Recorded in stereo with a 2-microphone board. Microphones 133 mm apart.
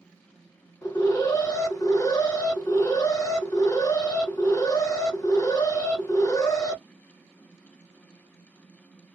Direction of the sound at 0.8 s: 25° left (ahead or behind).